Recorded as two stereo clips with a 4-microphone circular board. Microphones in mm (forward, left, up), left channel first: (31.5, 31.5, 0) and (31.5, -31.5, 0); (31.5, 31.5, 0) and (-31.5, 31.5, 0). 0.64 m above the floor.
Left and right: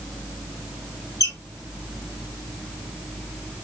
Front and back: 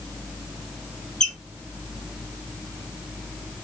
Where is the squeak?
75° left, 2.5 m.